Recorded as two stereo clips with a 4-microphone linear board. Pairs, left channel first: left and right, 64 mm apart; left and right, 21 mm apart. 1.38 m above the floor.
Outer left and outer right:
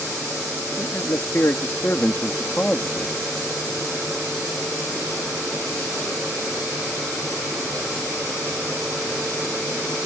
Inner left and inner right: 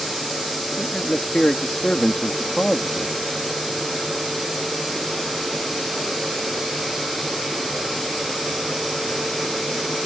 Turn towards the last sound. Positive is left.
turn(degrees=10)  # may be behind; listen again after turning